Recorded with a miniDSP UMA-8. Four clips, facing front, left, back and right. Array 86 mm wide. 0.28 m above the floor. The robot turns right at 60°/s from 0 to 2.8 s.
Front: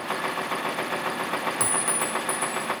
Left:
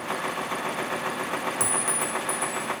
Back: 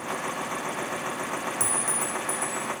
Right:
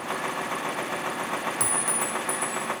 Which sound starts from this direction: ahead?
A clink, at 1.6 s.